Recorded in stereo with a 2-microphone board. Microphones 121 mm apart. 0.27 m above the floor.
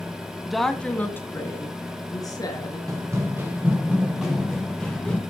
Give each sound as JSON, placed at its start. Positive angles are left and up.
{"t": 0.5, "sound": "a woman speaking", "side_deg": -5, "distance_m": 1.7}
{"t": 2.9, "sound": "running footsteps", "side_deg": -30, "distance_m": 3.5}